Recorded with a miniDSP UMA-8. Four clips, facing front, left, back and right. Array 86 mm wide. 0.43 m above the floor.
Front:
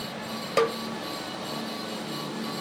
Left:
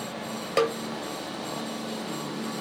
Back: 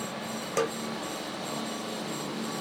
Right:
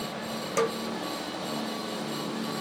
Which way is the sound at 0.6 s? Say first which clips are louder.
Left 3 dB, front 5 dB; 60° left.